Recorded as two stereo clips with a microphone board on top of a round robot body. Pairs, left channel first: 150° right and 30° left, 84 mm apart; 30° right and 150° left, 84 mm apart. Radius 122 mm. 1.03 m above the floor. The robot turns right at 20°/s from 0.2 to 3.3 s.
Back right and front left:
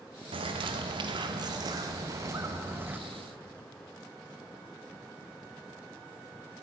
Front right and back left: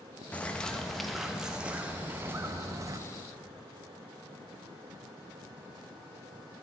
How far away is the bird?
About 0.7 m.